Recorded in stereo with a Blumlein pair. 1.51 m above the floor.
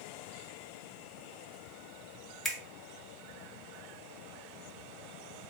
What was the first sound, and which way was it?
A finger snap, 10° left.